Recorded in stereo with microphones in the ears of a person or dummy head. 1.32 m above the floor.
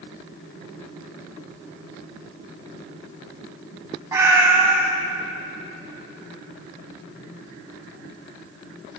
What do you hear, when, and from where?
4.1 s a cat meowing: 15° right (ahead or behind), 2.5 m